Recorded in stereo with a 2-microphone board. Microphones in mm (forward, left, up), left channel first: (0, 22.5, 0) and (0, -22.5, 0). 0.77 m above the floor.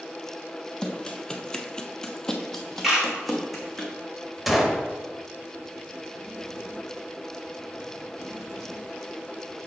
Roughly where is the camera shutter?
Centre.